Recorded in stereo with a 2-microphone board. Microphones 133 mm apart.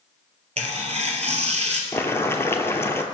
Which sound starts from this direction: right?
Tearing paper, at 0.6 s.